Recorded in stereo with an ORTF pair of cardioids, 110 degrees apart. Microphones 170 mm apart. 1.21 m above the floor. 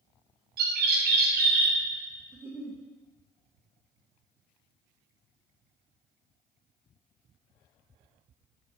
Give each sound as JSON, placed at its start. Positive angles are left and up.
{"t": 0.6, "sound": "a bird", "azimuth_deg": -65, "distance_m": 1.0}
{"t": 2.3, "sound": "a giggle", "azimuth_deg": -15, "distance_m": 0.9}